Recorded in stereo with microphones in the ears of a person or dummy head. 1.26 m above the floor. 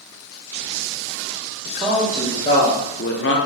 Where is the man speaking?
5° right (ahead or behind), 1.0 m; by 3.4 s 55° left (ahead or behind), 0.7 m.